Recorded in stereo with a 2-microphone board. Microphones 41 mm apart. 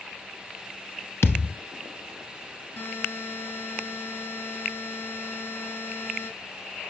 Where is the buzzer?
50° left (ahead or behind), 4 m.